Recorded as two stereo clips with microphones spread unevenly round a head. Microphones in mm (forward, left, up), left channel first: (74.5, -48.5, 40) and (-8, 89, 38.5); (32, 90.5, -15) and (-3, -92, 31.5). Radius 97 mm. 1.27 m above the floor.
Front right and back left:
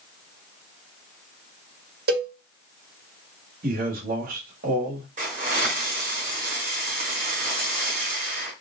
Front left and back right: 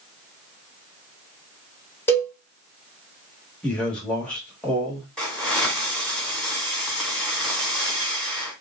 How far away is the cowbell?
About 1.7 m.